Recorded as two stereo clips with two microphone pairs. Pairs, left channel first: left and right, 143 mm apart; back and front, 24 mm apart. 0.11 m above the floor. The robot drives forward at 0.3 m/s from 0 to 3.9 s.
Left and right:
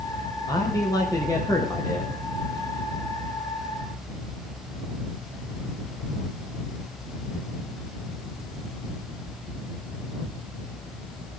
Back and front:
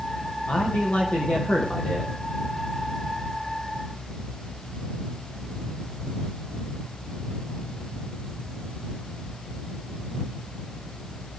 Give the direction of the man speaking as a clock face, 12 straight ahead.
7 o'clock.